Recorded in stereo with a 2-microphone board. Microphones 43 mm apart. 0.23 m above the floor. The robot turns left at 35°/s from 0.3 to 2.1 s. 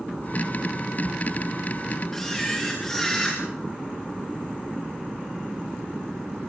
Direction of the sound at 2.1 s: 10° left (ahead or behind).